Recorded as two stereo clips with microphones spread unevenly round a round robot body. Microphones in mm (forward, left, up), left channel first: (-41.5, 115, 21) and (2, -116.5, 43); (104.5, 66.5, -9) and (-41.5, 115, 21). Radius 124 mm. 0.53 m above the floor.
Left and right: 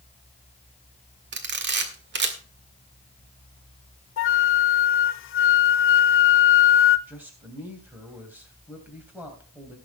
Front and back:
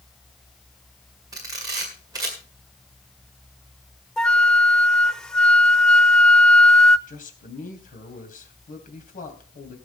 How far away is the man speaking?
About 3 m.